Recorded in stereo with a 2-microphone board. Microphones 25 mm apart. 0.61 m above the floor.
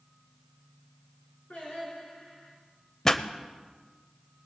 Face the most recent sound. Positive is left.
turn(degrees=20)  # may be behind; listen again after turning